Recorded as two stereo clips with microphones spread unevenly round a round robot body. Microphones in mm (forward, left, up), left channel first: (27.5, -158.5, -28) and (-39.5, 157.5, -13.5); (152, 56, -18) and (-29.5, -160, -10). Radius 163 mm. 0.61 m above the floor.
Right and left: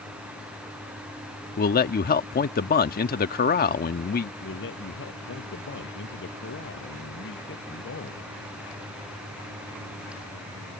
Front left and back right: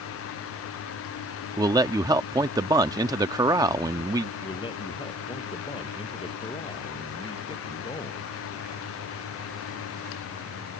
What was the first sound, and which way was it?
A man speaking, 65° right.